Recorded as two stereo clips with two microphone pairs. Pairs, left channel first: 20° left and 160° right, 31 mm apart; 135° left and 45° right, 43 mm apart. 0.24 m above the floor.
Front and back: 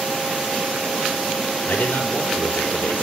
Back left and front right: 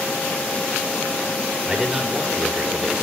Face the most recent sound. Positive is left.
turn(degrees=30)